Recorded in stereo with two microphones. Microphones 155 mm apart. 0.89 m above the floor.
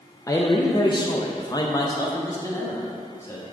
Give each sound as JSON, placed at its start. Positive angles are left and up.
{"t": 0.3, "sound": "a man speaking", "side_deg": 20, "distance_m": 0.5}